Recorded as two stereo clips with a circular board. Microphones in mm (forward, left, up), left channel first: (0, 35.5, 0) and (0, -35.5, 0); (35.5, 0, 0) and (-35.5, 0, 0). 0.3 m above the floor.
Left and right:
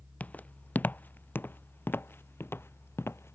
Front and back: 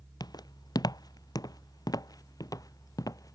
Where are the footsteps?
20° left; by 3.4 s 35° left.